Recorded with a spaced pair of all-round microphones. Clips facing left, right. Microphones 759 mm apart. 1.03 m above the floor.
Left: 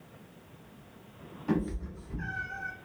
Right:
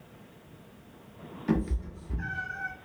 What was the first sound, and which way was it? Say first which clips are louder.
A cat meowing: right 1 dB; 55° right (ahead or behind).